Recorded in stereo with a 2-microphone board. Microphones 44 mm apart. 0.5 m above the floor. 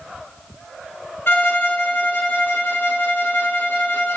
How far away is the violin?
About 0.6 m.